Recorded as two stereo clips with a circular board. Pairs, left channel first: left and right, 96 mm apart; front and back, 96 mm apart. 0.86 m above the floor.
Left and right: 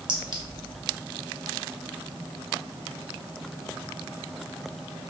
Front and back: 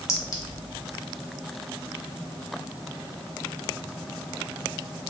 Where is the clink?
60° right, 0.8 m.